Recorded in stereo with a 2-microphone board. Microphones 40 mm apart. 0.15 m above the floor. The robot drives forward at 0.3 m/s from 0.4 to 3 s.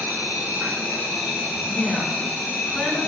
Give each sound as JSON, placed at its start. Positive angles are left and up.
{"t": 0.0, "sound": "an insect", "side_deg": -45, "distance_m": 1.0}
{"t": 1.7, "sound": "a woman speaking", "side_deg": 15, "distance_m": 1.6}